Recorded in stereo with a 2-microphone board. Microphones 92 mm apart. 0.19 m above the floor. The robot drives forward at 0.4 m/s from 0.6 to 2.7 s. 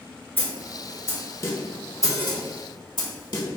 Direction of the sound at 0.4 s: 25° left (ahead or behind).